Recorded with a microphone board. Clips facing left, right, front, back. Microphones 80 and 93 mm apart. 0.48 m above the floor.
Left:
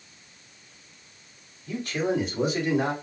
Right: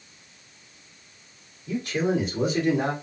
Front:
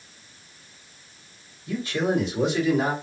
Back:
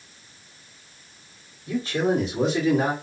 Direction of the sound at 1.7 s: 155° right.